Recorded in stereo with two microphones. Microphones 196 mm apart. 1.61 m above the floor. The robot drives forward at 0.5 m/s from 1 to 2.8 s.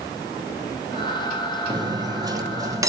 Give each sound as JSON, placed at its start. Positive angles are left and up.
{"t": 1.7, "sound": "cutlery clinking", "side_deg": -20, "distance_m": 0.7}